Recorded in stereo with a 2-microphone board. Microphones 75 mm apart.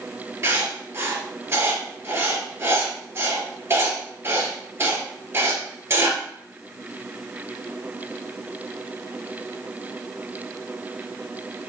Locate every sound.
0.4 s writing: 35° right (ahead or behind), 2 m